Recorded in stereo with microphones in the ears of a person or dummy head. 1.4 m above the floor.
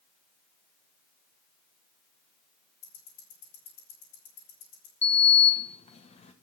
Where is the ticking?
75° left (ahead or behind), 4.5 m.